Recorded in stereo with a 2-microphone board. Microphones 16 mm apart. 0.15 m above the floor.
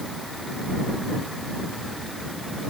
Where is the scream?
No scream in this recording.